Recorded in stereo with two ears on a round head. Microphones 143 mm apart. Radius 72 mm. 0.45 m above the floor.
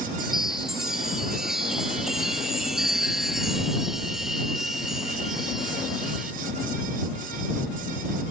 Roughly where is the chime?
Centre.